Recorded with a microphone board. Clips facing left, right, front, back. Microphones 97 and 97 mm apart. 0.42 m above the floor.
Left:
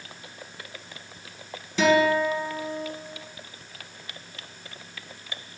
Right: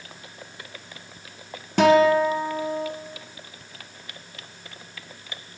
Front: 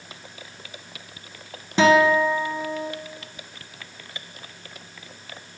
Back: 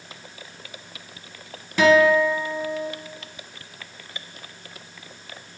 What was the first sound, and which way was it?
A guitar, 60° right.